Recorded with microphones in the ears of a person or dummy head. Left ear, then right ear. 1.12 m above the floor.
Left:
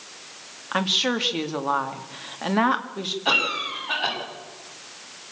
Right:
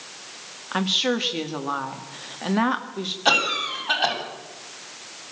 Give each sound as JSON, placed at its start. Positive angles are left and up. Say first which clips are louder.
{"t": 0.7, "sound": "a woman speaking", "louder": "even", "side_deg": 20, "distance_m": 1.9}
{"t": 3.2, "sound": "a cough", "louder": "right 2 dB", "side_deg": -85, "distance_m": 8.5}